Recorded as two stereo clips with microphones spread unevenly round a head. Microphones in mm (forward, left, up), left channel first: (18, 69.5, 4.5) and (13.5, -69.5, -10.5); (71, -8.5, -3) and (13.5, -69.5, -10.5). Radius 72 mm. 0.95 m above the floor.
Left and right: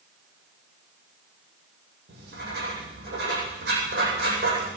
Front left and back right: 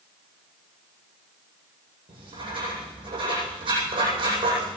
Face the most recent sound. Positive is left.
turn(degrees=-115)